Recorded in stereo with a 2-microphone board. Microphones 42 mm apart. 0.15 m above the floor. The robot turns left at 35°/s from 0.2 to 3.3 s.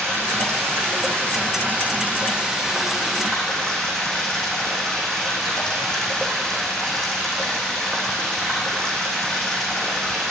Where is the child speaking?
No child speaking in this recording.